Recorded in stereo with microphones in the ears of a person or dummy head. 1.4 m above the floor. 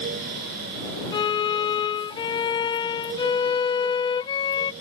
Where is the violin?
30° left (ahead or behind).